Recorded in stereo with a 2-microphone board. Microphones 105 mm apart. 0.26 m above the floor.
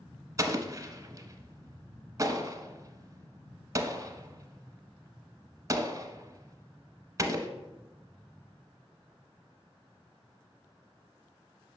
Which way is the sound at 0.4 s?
30° right (ahead or behind).